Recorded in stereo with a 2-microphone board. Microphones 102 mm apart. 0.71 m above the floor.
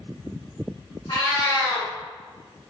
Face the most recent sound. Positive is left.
turn(degrees=50)  # may be behind; listen again after turning